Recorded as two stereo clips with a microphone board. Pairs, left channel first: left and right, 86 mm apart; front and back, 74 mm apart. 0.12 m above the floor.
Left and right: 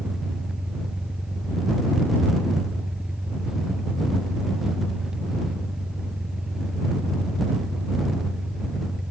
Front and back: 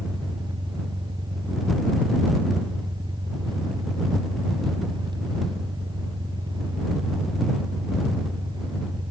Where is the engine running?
175° right.